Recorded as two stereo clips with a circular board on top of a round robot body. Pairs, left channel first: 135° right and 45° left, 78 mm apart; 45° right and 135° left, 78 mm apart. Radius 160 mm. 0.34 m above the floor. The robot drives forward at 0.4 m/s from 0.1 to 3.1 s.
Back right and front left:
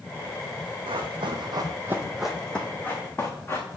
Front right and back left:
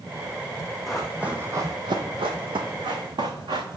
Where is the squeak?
No squeak in this recording.